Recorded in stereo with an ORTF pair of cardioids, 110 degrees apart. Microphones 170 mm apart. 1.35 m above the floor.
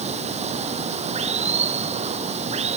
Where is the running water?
40° right.